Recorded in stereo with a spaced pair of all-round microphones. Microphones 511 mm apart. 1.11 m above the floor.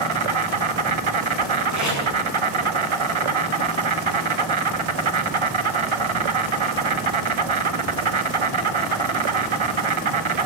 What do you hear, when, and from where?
0.0 s an insect: 70° right (ahead or behind), 0.7 m
1.7 s tape being pulled: 35° right (ahead or behind), 7 m